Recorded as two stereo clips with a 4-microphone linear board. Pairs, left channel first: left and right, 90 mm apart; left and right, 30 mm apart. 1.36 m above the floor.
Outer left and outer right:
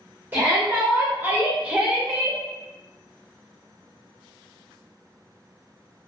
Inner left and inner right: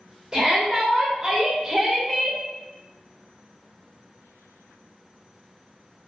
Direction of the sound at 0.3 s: 25° right (ahead or behind).